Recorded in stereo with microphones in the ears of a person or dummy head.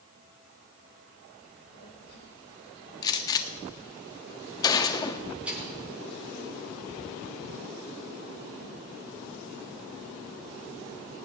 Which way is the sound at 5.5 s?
5° right (ahead or behind).